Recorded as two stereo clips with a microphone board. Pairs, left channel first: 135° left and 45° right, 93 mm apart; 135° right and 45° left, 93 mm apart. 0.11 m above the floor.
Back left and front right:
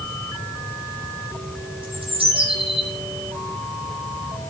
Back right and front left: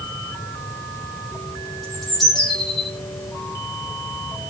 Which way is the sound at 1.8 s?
45° right.